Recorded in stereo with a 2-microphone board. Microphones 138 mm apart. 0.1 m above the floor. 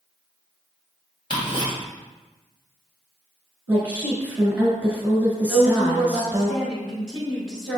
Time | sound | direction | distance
1.3 | ticking | 35° left (ahead or behind) | 2.0 m
3.7 | a woman speaking | 10° right (ahead or behind) | 1.1 m
5.5 | a woman speaking | 5° right (ahead or behind) | 1.4 m